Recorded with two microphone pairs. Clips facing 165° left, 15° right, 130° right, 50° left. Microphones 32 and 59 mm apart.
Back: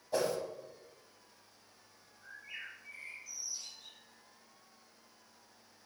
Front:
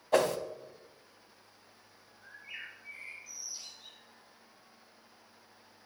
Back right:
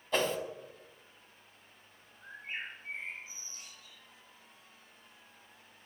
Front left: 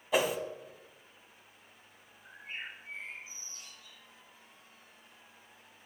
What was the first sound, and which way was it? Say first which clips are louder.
A whoosh: front 6 dB, front left 2 dB; 30° right.